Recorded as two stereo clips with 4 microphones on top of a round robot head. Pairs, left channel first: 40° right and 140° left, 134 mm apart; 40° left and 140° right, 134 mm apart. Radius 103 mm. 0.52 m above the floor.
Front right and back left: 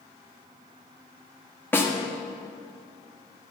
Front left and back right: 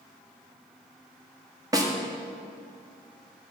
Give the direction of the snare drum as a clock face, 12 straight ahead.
3 o'clock.